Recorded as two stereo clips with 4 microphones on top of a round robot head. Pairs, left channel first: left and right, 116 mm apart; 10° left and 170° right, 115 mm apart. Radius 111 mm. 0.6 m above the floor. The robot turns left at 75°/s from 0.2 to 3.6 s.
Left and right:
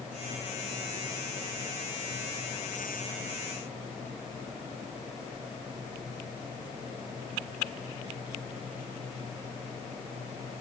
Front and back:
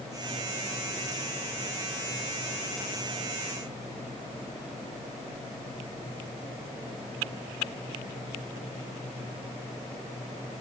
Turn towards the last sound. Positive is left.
No sound to turn to.